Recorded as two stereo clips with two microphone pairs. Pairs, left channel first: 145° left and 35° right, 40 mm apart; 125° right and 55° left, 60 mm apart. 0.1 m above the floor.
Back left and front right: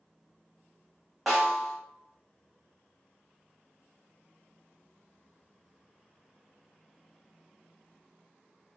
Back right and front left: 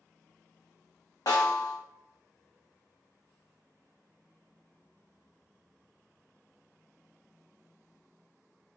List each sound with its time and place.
1.3 s a snare drum: 130° right, 1.3 m